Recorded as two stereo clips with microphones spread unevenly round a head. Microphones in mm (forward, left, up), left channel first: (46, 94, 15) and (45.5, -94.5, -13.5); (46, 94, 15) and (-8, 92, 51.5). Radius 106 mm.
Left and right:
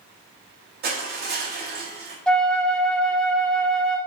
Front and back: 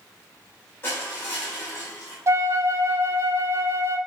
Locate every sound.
0.8 s crushing: 55° right, 2.5 m
2.3 s a flute: 175° left, 0.5 m